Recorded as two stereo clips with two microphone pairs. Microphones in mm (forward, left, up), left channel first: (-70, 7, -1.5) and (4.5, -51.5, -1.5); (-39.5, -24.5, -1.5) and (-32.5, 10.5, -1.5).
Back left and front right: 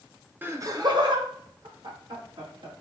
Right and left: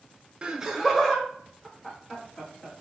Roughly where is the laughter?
Ahead left.